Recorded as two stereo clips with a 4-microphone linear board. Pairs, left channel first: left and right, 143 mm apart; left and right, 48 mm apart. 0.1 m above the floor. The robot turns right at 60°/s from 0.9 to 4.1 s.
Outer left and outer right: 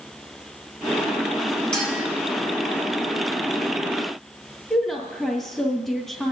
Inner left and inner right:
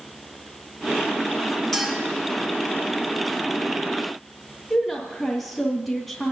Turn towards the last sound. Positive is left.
turn(degrees=0)  # may be behind; listen again after turning